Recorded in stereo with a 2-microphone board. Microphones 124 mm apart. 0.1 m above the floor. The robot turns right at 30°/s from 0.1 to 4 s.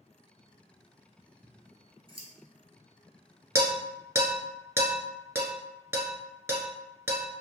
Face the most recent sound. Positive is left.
turn(degrees=-20)  # may be behind; listen again after turning